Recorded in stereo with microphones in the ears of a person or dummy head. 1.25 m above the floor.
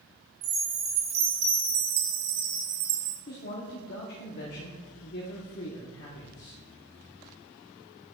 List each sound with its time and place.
0.4 s a chime: 40° right (ahead or behind), 0.6 m
3.3 s a man speaking: 50° left (ahead or behind), 1.0 m